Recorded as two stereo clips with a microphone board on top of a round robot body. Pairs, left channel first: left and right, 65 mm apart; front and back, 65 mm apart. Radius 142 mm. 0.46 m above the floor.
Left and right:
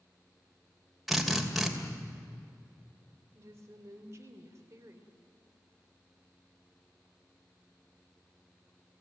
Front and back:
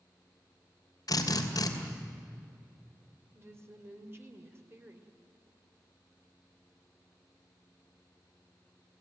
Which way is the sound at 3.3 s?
135° right.